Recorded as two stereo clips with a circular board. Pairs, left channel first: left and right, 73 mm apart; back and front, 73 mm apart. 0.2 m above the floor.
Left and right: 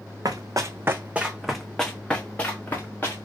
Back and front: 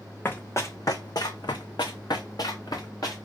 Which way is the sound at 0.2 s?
120° right.